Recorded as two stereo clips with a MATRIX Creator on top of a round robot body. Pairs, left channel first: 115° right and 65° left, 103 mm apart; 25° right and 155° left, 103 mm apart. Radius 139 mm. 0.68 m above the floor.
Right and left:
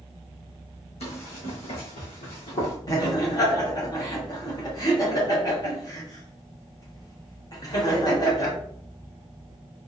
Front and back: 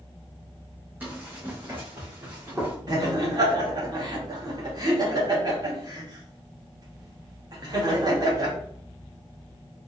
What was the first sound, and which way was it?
Running footsteps, 130° right.